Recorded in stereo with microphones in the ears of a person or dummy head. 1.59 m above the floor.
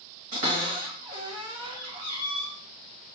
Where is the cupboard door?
45° right (ahead or behind), 1.4 m.